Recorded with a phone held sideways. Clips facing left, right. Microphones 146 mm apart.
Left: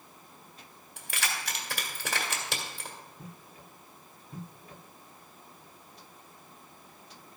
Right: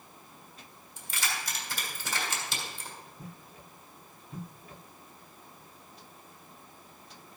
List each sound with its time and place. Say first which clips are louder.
1.0 s keys jangling: left 1 dB; 65° left (ahead or behind), 1.7 m